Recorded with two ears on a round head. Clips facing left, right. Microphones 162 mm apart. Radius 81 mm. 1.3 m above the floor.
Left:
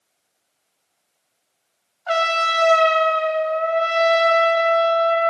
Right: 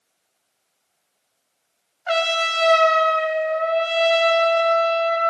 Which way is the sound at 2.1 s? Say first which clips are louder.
Even; 25° right (ahead or behind).